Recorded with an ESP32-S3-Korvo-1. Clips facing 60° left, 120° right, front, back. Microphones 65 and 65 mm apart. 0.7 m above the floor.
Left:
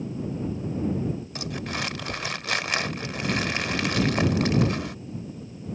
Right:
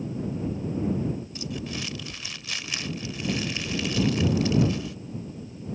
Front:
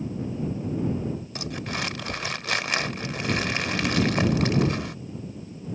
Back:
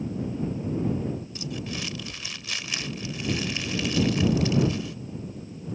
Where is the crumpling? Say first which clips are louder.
Left 2 dB, front 2 dB; 30° left.